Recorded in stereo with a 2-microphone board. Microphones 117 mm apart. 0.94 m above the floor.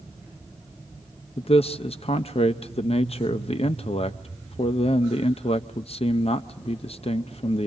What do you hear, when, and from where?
1.4 s a man speaking: 60° left (ahead or behind), 0.5 m